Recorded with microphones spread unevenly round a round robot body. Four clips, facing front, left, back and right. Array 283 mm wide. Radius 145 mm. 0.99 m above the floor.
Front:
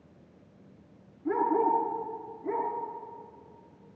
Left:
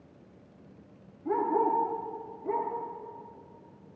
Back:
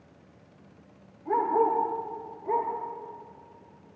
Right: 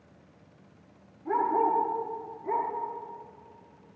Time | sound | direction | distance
1.2 | a dog barking | 5° right | 6.5 m